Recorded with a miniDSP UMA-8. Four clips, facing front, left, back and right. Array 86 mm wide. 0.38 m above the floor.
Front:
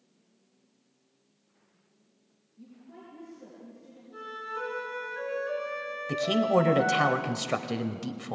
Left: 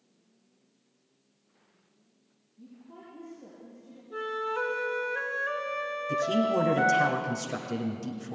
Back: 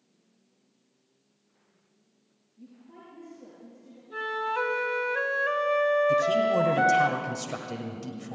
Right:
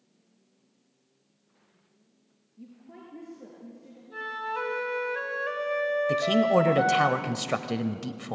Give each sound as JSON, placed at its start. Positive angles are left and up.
{"t": 2.6, "sound": "a woman speaking", "azimuth_deg": -95, "distance_m": 6.5}
{"t": 4.1, "sound": "a flute", "azimuth_deg": -160, "distance_m": 1.8}
{"t": 6.1, "sound": "a man speaking", "azimuth_deg": -60, "distance_m": 1.4}